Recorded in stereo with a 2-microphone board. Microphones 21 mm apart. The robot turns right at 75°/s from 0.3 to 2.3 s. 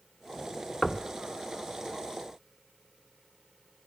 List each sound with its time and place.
0.8 s knocking: 5° left (ahead or behind), 1.1 m; by 1.1 s 10° left (ahead or behind), 1.1 m